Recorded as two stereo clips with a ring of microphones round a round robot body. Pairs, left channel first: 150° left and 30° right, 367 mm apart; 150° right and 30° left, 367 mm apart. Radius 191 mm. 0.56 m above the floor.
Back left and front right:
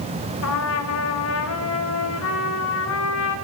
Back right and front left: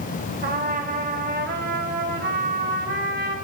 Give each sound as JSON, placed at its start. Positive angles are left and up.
{"t": 0.4, "sound": "a trumpet", "azimuth_deg": 95, "distance_m": 1.7}